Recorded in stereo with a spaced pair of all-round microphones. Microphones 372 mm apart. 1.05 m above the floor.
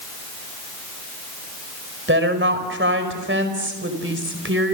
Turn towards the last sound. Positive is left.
turn(degrees=-30)  # may be behind; listen again after turning